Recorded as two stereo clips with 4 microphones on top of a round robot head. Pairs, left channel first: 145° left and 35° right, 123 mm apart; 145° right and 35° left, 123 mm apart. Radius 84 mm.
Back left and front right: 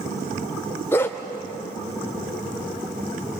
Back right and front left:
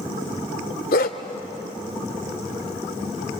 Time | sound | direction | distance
0.9 | a dog barking | 140° right | 1.3 m